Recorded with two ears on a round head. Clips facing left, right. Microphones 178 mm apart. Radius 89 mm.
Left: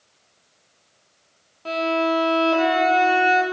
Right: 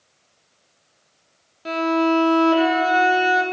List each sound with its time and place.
1.6 s a violin: 20° right (ahead or behind), 0.9 m